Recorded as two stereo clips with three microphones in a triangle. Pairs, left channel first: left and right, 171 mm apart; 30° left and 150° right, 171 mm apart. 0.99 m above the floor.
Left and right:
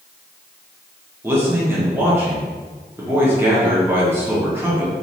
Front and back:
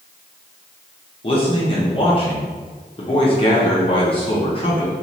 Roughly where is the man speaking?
Ahead.